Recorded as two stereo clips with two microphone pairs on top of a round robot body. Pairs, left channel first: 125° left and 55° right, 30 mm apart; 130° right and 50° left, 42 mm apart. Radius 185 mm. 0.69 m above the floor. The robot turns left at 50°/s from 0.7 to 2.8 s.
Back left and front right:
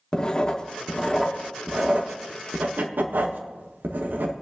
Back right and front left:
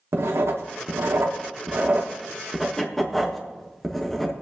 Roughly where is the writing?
Ahead left.